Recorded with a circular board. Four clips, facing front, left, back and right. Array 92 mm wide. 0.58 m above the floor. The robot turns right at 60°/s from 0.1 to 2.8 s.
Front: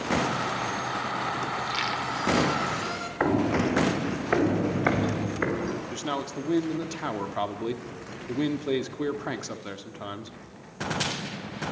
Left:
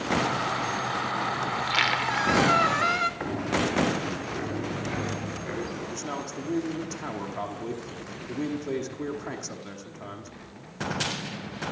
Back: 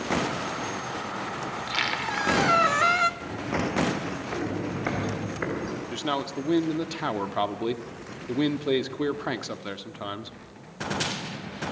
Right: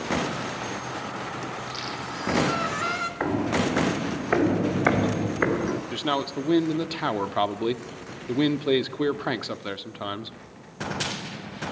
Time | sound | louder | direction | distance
1.5 | a squeak | left 7 dB, front 1 dB | 90° left | 0.9 m
3.2 | footsteps | right 3 dB, front 6 dB | 20° right | 2.5 m
5.9 | a man speaking | right 7 dB, back 2 dB | 110° right | 1.1 m